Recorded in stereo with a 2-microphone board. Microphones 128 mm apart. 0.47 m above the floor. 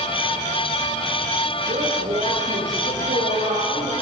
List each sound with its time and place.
1.7 s a woman speaking: 80° right, 8 m